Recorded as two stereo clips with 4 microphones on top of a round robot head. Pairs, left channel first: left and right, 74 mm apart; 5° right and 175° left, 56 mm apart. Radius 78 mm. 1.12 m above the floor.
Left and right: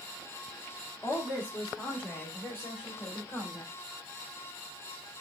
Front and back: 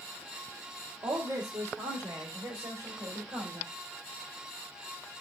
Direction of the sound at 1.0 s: 160° left.